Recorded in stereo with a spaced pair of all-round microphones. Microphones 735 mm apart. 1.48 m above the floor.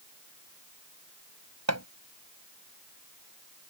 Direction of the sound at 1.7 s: 20° right (ahead or behind).